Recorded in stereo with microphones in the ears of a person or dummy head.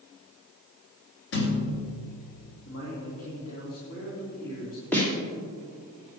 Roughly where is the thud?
Left.